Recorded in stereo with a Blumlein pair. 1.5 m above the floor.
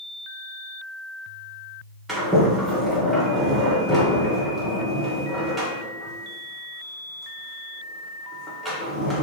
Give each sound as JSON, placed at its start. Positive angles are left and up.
{"t": 2.1, "sound": "a sliding door", "azimuth_deg": -5, "distance_m": 0.9}